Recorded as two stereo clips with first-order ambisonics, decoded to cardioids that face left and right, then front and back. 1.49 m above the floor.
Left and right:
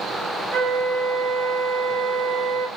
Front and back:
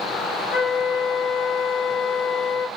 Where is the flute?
40° right, 1.5 m.